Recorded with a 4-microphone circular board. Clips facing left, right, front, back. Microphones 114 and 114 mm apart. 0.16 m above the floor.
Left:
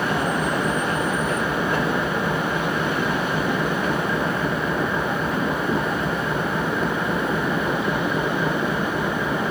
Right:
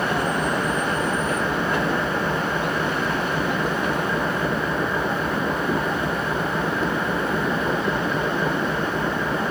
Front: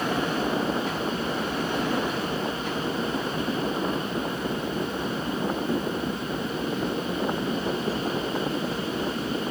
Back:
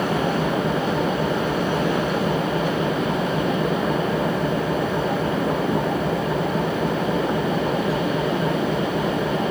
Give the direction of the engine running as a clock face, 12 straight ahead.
6 o'clock.